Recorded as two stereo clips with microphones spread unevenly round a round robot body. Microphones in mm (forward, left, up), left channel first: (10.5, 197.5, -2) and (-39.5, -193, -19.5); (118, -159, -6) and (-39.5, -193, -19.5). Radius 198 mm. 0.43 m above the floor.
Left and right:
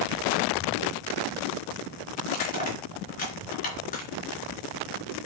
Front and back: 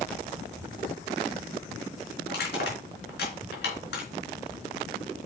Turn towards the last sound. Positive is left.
turn(degrees=10)